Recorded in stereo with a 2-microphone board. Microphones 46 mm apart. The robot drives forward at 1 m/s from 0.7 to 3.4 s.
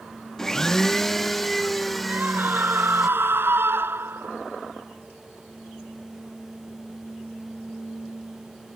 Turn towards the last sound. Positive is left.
turn(degrees=-55)  # may be behind; listen again after turning